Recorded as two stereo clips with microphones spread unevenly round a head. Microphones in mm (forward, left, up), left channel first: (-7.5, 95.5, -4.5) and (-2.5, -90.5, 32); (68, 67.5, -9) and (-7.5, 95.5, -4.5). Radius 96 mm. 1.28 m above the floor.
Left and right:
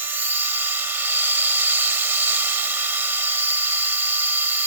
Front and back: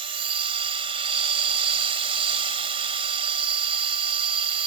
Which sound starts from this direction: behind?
A machine running, at 0.0 s.